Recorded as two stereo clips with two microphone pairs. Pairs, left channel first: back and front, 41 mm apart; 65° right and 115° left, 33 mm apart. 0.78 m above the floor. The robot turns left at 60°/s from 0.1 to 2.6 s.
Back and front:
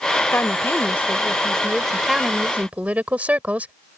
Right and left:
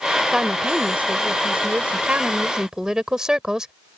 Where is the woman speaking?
175° right; by 3.7 s 50° left.